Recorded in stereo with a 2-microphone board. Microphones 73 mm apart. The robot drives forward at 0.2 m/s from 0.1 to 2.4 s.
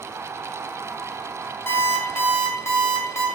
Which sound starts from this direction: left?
An alarm clock, at 1.7 s.